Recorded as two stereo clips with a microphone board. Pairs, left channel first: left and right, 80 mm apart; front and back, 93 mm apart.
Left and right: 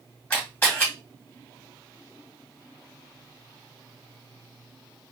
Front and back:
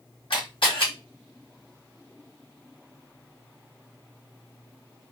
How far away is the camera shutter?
About 2.5 m.